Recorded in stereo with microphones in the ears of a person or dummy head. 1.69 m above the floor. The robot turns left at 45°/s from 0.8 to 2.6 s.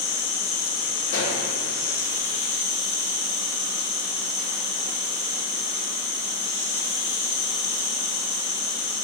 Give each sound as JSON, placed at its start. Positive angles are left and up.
{"t": 0.0, "sound": "an insect", "azimuth_deg": 110, "distance_m": 1.7}
{"t": 1.1, "sound": "a pop", "side_deg": 65, "distance_m": 1.2}